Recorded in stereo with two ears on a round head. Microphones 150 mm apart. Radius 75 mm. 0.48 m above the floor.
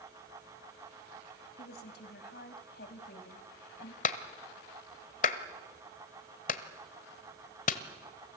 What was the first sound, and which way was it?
A woman speaking, 65° left (ahead or behind).